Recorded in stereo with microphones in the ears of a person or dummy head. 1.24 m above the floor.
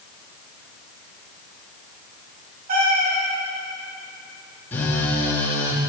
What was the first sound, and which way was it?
A cat meowing, 45° right (ahead or behind).